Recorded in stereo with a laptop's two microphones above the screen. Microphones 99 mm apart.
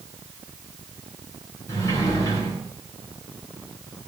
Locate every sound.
1.7 s a sliding door: 30° left (ahead or behind), 9 m